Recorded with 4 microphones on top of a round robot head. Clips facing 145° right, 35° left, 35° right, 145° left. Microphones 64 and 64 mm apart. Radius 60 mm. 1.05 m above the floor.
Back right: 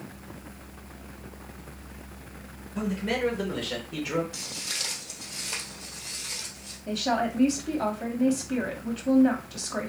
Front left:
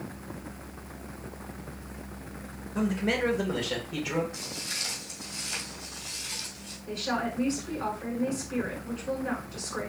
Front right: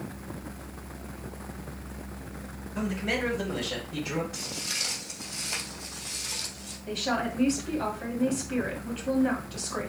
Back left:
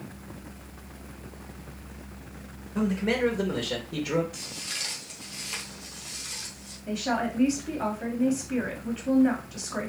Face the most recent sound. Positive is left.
turn(degrees=-130)